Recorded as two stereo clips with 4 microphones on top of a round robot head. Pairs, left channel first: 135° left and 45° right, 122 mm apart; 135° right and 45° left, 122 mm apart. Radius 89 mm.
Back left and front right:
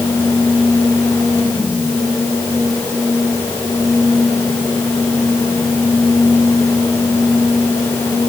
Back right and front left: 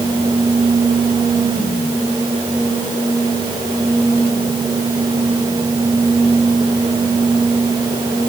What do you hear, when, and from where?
Only background noise.